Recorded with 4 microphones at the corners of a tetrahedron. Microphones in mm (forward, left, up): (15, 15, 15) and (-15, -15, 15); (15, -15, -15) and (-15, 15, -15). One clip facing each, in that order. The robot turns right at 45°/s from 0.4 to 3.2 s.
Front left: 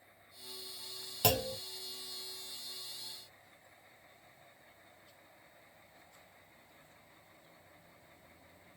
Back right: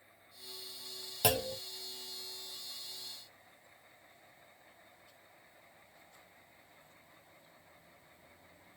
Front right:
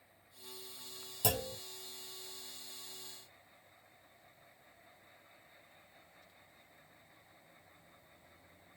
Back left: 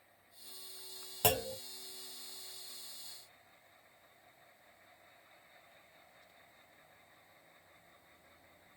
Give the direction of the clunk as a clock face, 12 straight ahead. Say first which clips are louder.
Even, back left 3 dB; 7 o'clock.